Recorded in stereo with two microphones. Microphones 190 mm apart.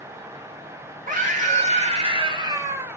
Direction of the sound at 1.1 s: 45° right (ahead or behind).